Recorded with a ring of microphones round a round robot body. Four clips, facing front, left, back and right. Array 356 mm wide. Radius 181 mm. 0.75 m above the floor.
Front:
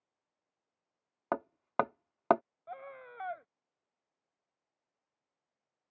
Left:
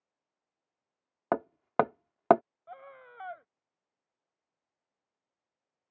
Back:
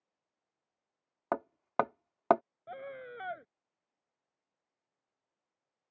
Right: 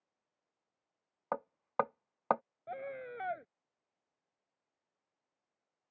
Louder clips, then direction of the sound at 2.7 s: Right 7 dB, back 3 dB; 130° right.